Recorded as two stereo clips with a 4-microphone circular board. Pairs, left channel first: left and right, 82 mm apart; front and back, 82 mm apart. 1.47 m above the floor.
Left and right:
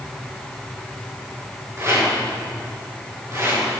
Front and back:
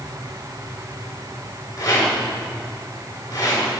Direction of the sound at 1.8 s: 35° right.